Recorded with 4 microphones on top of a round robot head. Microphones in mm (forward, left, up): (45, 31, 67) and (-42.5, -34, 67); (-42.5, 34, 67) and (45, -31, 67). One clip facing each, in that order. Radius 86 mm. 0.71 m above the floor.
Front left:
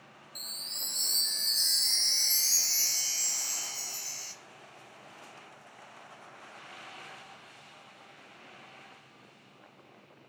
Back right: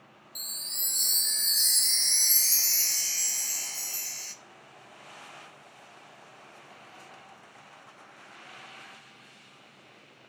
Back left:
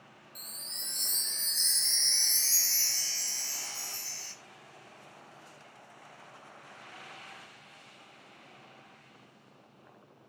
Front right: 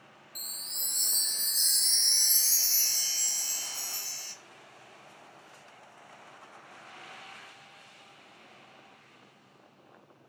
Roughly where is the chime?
Right.